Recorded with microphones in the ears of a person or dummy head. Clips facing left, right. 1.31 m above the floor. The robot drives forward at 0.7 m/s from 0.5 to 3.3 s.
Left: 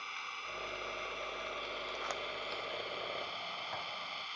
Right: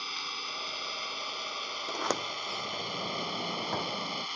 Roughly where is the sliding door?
Right.